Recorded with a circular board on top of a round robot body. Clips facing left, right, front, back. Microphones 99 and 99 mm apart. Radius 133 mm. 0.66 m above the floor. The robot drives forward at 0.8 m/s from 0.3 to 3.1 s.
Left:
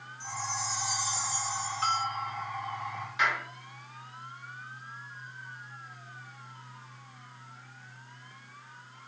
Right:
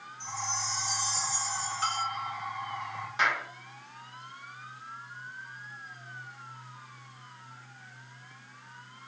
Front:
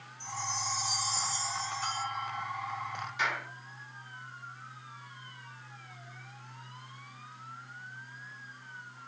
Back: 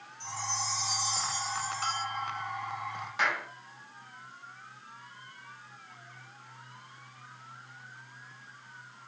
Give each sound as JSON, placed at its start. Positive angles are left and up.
{"t": 0.2, "sound": "a chime", "azimuth_deg": 10, "distance_m": 1.9}
{"t": 1.8, "sound": "a bell", "azimuth_deg": -155, "distance_m": 5.5}
{"t": 3.2, "sound": "a clap", "azimuth_deg": -145, "distance_m": 5.0}